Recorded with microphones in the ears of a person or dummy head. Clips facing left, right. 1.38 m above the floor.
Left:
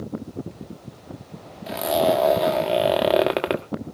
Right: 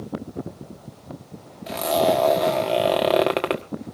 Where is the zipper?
5° left (ahead or behind), 1.4 m.